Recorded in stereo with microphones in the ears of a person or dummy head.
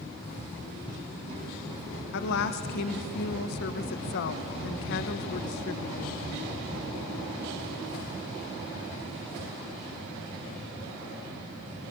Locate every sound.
2.1 s a woman speaking: 65° left (ahead or behind), 1.0 m